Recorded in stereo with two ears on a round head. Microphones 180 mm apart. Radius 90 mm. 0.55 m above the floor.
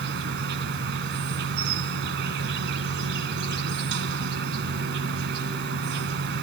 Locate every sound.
0.0 s an insect: 60° right (ahead or behind), 1.1 m